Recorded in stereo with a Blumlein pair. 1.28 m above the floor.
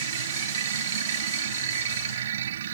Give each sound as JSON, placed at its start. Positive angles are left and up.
{"t": 0.0, "sound": "a machine running", "azimuth_deg": -60}